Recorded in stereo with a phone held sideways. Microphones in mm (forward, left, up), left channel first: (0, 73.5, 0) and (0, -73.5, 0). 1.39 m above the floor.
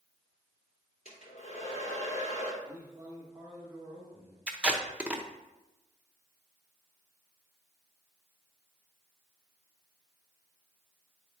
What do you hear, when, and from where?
1.1 s a hair dryer: 70° left (ahead or behind), 2.5 m
2.6 s a man speaking: 15° right (ahead or behind), 1.8 m
4.5 s tape being pulled: 10° right (ahead or behind), 0.8 m